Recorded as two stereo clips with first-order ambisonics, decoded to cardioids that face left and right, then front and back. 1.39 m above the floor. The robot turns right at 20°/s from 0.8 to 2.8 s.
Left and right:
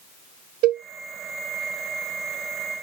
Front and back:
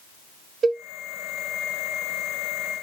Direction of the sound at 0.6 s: 110° right.